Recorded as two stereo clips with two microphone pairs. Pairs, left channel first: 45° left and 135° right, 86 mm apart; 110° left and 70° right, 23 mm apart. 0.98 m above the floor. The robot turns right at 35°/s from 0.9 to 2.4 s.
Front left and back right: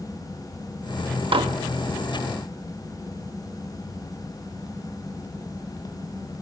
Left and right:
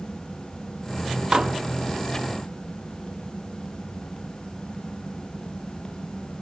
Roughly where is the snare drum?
I don't hear a snare drum.